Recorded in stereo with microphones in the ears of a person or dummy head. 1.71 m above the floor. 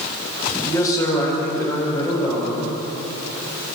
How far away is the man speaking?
About 8 m.